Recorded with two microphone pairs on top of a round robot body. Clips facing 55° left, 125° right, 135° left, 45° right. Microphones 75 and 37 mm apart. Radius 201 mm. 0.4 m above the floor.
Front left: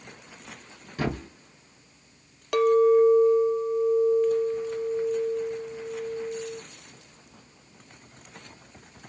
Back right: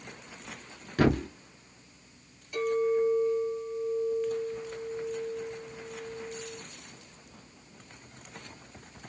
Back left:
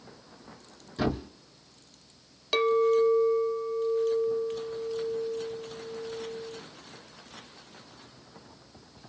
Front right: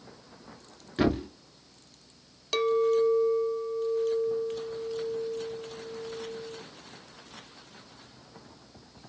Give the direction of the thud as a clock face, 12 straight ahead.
3 o'clock.